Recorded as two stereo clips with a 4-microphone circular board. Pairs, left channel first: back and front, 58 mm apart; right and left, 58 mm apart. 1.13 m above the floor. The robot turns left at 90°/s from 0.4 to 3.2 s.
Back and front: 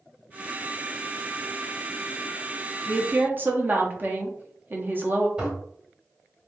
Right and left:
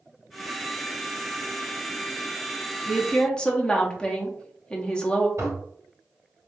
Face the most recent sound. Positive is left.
turn(degrees=65)